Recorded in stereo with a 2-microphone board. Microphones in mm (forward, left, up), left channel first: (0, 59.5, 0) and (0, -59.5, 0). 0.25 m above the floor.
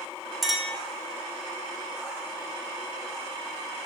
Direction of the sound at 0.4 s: Centre (ahead or behind).